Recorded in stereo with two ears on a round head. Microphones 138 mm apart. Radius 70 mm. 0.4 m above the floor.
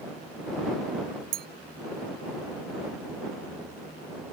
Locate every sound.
1.3 s a clink: 60° right (ahead or behind)